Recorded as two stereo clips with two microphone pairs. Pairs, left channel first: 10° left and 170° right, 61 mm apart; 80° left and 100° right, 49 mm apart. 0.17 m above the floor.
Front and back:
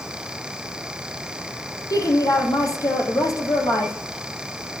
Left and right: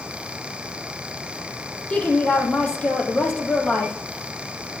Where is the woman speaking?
15° left, 4.5 m.